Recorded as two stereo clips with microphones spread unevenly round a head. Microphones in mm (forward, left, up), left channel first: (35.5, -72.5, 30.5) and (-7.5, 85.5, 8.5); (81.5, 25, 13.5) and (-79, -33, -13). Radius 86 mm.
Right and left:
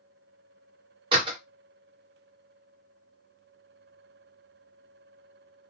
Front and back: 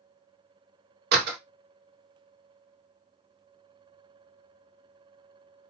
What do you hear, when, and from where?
1.1 s a door slam: 170° left, 1.0 m